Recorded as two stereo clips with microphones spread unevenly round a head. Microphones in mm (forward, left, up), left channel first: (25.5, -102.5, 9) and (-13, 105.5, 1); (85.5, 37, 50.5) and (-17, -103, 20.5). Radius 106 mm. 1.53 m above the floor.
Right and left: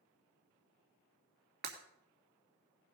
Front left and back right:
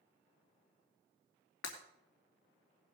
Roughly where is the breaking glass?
Ahead left.